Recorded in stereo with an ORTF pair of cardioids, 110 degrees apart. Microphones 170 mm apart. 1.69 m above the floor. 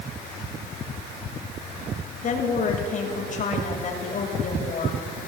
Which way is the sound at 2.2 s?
50° left.